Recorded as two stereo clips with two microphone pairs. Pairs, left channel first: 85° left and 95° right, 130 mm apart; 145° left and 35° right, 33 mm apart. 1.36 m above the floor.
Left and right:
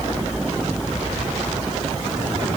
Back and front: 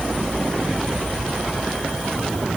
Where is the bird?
No bird in this recording.